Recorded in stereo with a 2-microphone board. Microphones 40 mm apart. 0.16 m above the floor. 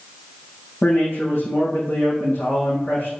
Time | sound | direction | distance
0.8 | a man speaking | 65° left (ahead or behind) | 5.5 m